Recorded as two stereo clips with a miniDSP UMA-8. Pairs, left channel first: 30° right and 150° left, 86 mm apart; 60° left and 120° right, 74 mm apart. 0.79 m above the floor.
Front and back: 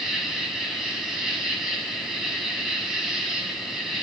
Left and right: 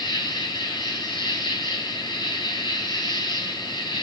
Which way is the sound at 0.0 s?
65° left.